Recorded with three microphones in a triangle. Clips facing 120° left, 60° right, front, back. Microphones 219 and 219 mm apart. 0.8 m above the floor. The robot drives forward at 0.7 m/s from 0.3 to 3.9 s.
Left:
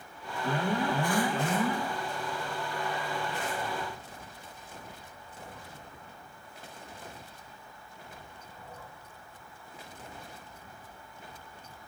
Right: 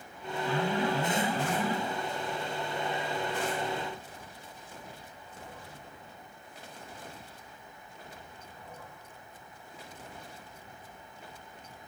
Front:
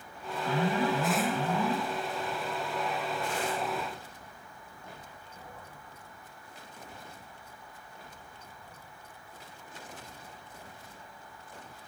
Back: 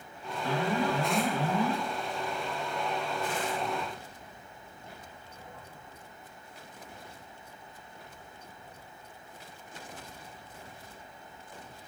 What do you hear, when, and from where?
0.4 s an alarm: 140° left, 1.6 m; by 1.8 s 155° left, 2.5 m